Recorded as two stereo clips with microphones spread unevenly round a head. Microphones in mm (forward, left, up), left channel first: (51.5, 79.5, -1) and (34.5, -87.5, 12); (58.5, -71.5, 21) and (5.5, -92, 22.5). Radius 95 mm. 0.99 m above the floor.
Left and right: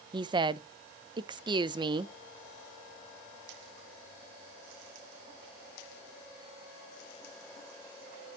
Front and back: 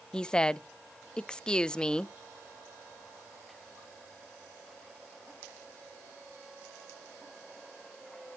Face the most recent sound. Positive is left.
turn(degrees=-45)